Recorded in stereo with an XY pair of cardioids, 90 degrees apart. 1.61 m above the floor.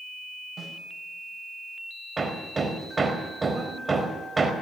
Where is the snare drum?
35° right, 8.5 m.